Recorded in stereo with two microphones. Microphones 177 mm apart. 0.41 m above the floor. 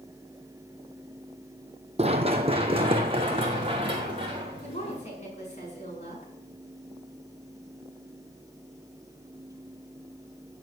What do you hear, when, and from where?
2.0 s running footsteps: 35° right (ahead or behind), 0.9 m; by 5.0 s 30° right (ahead or behind), 3.5 m
4.6 s a woman speaking: 40° left (ahead or behind), 5 m